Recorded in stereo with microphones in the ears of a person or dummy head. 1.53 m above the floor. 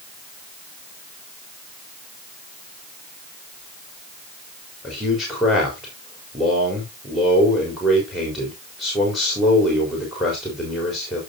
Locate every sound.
4.8 s a man speaking: centre (ahead or behind), 4 m